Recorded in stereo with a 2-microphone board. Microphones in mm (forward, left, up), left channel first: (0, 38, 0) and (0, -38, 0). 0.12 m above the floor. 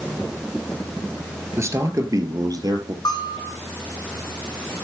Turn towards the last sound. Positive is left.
turn(degrees=70)  # may be behind; listen again after turning